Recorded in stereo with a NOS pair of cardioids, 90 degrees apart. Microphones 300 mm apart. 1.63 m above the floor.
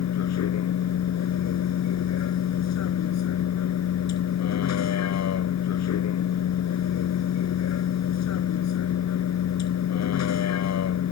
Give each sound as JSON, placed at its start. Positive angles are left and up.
{"t": 0.0, "sound": "a vehicle", "azimuth_deg": 60}